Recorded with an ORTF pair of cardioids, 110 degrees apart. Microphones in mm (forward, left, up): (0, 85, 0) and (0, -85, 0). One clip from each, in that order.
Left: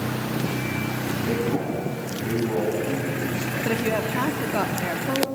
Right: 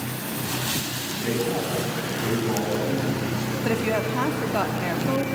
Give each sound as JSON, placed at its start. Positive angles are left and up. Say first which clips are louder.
{"t": 1.2, "sound": "a man speaking", "louder": "right 1 dB", "azimuth_deg": -10, "distance_m": 8.0}
{"t": 3.6, "sound": "a woman speaking", "louder": "right 1 dB", "azimuth_deg": 0, "distance_m": 3.0}